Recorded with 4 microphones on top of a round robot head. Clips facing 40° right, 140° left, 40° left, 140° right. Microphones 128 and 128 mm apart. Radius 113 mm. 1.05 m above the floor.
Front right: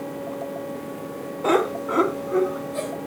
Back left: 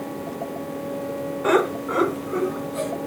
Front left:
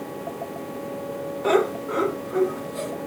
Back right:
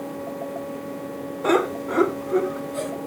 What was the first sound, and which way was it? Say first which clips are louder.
Laughter: even, even; 95° right.